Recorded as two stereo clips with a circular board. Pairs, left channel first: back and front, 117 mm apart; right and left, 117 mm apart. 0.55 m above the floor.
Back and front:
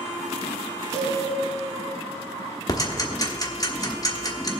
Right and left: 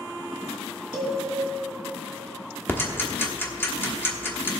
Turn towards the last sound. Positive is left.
turn(degrees=-150)